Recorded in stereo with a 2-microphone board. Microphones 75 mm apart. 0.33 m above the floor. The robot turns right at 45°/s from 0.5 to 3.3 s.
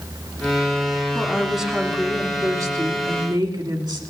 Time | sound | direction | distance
1.1 | a woman speaking | 165° left | 2.5 m